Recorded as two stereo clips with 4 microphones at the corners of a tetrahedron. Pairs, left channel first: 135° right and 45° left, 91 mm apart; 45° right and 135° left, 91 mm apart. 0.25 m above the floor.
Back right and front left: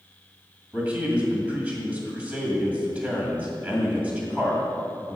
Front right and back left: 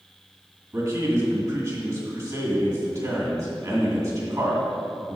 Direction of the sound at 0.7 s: 110° left.